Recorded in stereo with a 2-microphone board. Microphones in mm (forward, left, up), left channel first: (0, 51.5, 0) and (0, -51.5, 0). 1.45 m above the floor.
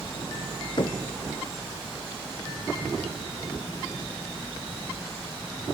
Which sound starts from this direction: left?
Knocking, at 0.8 s.